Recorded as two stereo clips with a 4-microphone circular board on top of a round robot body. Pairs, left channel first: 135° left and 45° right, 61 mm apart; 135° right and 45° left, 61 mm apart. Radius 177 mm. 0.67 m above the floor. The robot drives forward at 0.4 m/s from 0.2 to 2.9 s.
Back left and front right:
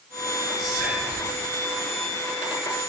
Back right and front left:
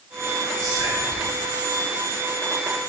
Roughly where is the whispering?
Ahead left.